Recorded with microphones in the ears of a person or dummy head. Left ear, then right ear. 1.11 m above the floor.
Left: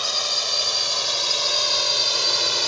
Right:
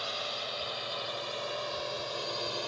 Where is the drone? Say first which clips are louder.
Left 12 dB; 80° left; by 2.7 s 60° left (ahead or behind).